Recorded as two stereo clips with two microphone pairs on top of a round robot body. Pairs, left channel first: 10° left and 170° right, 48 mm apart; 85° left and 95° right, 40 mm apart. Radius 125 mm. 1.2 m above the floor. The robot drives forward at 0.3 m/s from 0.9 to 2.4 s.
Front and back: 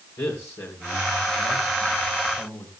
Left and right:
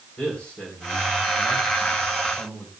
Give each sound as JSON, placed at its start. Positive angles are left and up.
{"t": 0.2, "sound": "a man speaking", "azimuth_deg": 25, "distance_m": 3.5}